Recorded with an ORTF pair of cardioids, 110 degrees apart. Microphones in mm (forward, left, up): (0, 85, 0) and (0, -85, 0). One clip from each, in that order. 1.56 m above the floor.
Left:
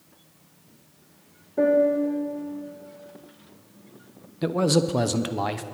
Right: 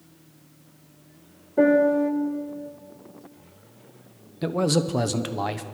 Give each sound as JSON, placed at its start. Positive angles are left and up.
{"t": 1.6, "sound": "a piano", "azimuth_deg": -25, "distance_m": 1.3}
{"t": 4.4, "sound": "a man speaking", "azimuth_deg": 5, "distance_m": 0.7}